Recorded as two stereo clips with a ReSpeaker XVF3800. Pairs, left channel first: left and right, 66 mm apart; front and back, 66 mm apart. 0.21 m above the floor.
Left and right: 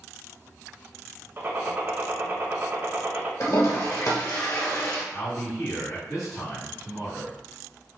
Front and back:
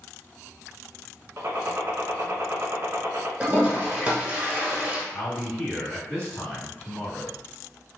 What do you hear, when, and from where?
1.4 s a gunshot: 135° right, 0.5 m
3.4 s a toilet flushing: 115° left, 0.9 m
5.1 s a man speaking: 5° left, 1.9 m